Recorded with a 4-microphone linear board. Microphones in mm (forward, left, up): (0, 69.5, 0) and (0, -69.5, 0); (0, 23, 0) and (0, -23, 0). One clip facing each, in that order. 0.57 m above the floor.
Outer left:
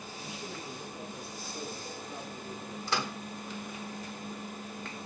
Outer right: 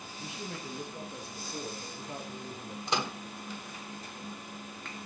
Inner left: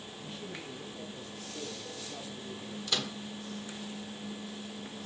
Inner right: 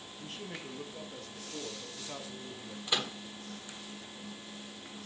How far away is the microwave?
About 1.4 m.